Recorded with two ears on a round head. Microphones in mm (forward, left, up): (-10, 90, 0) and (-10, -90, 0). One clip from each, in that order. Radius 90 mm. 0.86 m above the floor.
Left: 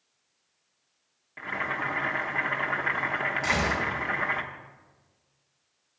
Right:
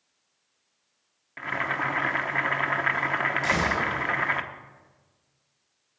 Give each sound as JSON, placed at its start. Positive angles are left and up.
{"t": 1.4, "sound": "boiling", "side_deg": -25, "distance_m": 0.9}
{"t": 3.4, "sound": "a gunshot", "side_deg": 0, "distance_m": 4.5}